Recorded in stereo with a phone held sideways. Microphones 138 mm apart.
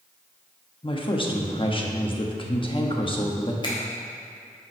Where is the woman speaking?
35° left (ahead or behind), 1.1 m.